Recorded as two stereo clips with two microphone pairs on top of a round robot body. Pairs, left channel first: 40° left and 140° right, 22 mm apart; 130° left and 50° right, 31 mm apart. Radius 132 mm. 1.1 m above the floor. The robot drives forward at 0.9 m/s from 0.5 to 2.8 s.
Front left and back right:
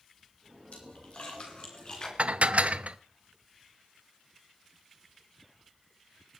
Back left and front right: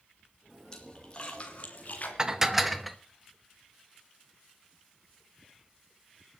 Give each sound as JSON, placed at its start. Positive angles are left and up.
{"t": 0.7, "sound": "a splash", "azimuth_deg": 60, "distance_m": 2.5}
{"t": 2.2, "sound": "dishes clattering", "azimuth_deg": -110, "distance_m": 1.1}